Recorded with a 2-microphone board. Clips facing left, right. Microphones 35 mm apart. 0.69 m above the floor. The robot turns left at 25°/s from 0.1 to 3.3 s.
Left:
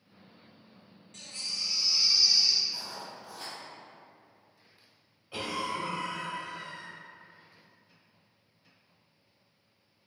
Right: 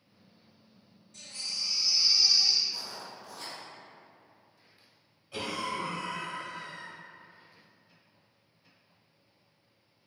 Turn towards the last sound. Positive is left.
turn(degrees=20)  # may be behind; listen again after turning